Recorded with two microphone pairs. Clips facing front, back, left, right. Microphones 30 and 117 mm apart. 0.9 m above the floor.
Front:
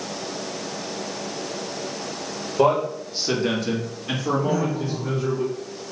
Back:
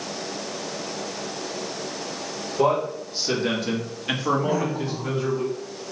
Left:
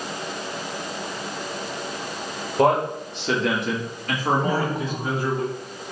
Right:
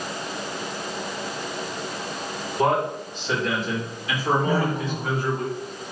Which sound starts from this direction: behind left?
A woman speaking, at 4.4 s.